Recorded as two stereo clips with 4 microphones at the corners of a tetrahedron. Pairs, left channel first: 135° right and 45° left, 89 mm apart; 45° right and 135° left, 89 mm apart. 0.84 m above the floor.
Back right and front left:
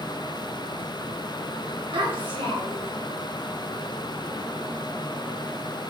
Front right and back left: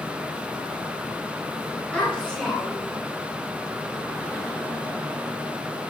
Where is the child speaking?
35° left, 2 m; by 3.0 s 40° left, 2.5 m.